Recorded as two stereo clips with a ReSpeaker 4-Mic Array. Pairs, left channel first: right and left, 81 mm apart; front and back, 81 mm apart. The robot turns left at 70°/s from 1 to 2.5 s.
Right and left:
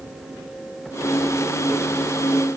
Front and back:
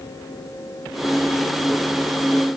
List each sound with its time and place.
Only background noise.